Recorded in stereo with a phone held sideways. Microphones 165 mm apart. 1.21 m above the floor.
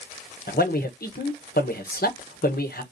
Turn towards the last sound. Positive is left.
turn(degrees=70)  # may be behind; listen again after turning